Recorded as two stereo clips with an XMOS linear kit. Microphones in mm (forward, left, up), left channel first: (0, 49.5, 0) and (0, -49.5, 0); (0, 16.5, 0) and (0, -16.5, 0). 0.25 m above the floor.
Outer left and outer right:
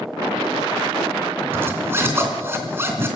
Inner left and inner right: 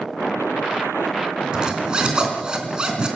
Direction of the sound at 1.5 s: 25° right (ahead or behind).